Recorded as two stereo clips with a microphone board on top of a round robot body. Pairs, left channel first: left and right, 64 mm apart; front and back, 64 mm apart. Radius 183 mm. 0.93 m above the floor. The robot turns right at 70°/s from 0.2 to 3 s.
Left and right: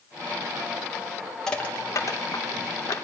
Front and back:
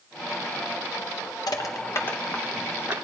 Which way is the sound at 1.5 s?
10° left.